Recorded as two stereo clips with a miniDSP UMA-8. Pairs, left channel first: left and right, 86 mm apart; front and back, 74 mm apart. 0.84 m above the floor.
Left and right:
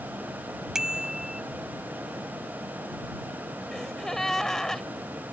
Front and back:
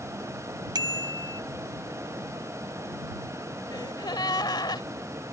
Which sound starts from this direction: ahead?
A gasp, at 3.7 s.